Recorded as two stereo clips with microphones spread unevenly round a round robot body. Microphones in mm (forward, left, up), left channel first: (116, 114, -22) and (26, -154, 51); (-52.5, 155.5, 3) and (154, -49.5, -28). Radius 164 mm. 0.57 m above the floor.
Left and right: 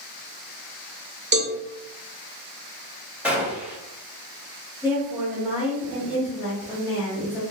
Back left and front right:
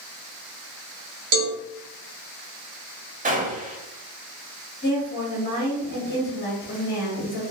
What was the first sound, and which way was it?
A cowbell, 50° right.